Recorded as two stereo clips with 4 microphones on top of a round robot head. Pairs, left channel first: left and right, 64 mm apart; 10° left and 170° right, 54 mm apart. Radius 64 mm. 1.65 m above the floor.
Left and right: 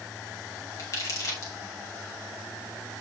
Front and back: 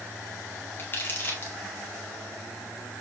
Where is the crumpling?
55° left, 1.6 m.